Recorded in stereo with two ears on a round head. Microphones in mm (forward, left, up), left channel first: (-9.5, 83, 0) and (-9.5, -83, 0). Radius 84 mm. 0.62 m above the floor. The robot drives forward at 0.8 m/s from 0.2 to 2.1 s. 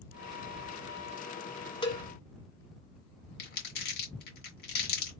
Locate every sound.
1.8 s a cowbell: 25° left (ahead or behind), 0.9 m
3.4 s crumpling: 60° left (ahead or behind), 2 m